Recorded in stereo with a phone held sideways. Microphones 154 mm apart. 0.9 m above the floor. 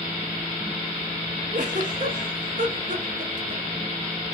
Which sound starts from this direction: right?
A giggle, at 1.5 s.